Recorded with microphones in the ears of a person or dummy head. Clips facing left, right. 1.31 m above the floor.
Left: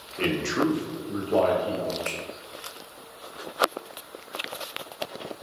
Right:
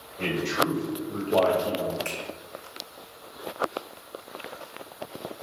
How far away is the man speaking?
About 0.8 m.